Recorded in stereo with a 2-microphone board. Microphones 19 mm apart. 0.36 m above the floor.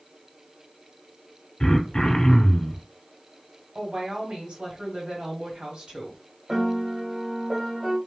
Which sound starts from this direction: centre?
A piano, at 6.5 s.